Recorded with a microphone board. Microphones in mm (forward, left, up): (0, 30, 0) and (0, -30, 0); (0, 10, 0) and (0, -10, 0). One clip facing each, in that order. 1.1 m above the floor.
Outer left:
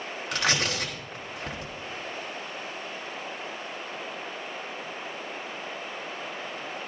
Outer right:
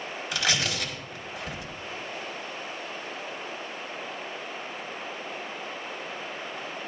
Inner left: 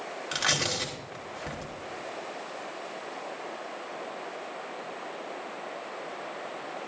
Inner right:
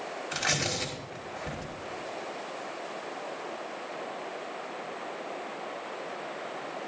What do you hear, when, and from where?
0.3 s tearing paper: 65° left (ahead or behind), 3 m